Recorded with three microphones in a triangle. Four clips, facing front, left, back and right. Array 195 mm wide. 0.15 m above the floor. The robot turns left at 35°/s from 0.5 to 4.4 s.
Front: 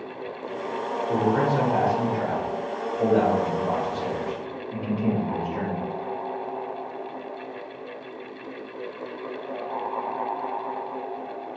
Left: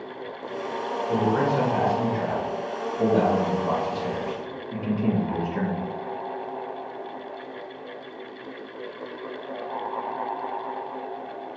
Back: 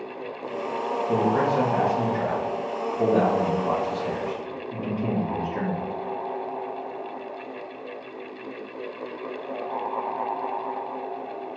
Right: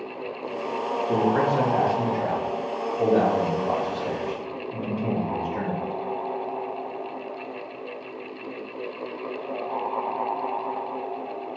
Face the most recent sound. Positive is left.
turn(degrees=115)